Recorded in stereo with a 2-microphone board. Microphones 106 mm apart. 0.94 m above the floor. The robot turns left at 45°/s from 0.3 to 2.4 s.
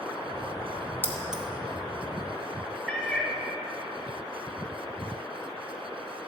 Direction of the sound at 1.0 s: 20° right (ahead or behind).